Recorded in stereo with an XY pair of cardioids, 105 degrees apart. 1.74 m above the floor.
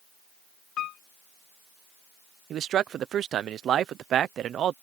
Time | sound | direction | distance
0.8 | a piano | 65° left | ?
2.5 | a man speaking | 60° right | ?